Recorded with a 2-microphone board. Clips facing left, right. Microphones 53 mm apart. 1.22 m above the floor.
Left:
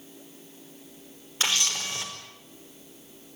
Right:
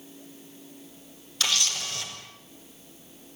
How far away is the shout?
No shout in this recording.